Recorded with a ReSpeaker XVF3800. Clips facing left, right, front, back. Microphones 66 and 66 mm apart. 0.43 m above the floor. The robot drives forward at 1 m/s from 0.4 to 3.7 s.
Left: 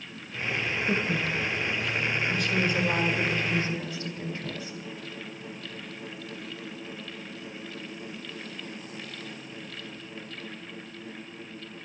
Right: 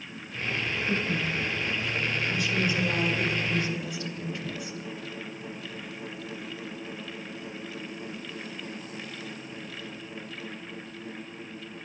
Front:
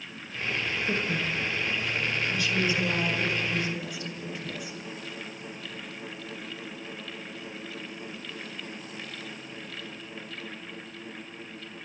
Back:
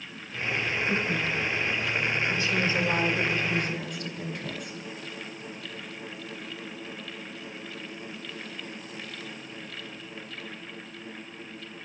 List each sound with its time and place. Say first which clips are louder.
0.9 s a woman speaking: left 1 dB, even; 65° left, 1.7 m; by 4.8 s 150° left, 2.5 m